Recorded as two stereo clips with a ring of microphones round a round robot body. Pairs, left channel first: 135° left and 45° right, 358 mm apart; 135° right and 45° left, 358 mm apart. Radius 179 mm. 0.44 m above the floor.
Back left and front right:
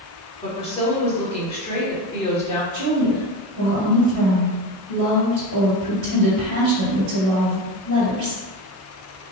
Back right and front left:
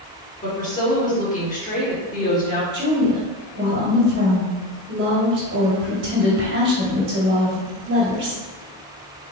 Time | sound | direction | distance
0.4 | a woman speaking | 175° right | 1.4 m
2.7 | a woman speaking | 15° right | 1.5 m